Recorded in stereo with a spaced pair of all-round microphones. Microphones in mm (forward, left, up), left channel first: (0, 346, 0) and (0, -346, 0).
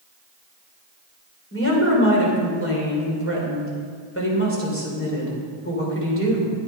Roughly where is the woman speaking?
Centre.